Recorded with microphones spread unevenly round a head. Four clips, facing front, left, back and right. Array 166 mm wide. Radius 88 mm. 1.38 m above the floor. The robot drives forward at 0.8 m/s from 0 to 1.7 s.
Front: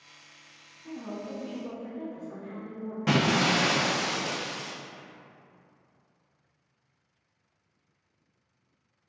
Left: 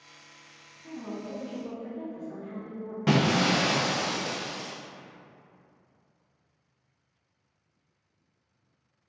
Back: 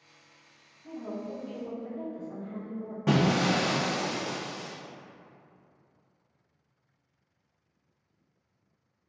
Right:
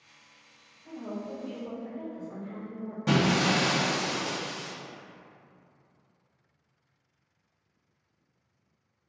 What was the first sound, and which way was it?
A woman speaking, 110° left.